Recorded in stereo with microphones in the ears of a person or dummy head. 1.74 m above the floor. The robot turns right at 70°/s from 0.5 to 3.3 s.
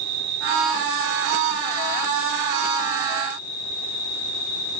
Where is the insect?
130° right, 6 m; by 4.8 s 70° left, 6 m.